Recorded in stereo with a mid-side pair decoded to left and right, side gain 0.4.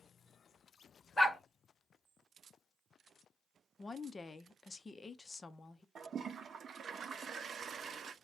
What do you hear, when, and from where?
1.2 s a dog barking: 20° left, 1.8 m
3.8 s a woman speaking: 30° left, 0.7 m
6.0 s a toilet flushing: 55° right, 0.6 m